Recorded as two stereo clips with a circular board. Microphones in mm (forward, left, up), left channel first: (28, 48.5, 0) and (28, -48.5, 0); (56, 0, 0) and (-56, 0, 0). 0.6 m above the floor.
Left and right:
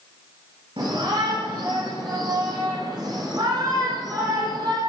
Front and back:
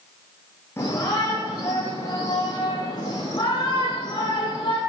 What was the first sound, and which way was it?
A shout, 70° right.